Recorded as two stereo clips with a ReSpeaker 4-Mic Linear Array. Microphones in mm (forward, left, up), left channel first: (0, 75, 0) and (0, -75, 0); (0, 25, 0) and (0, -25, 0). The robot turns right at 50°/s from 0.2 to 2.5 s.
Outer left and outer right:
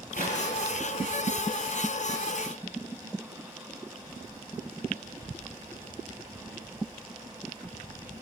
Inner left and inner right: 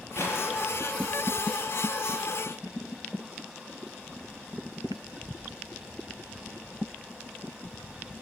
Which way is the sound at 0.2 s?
75° left (ahead or behind).